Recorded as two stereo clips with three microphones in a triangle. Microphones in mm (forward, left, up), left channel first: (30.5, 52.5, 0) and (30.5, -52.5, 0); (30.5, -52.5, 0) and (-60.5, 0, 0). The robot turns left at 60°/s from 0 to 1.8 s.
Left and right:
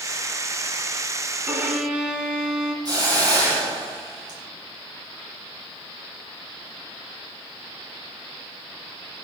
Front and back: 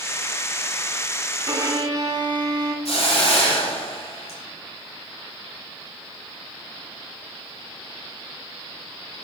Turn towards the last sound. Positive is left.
turn(degrees=-40)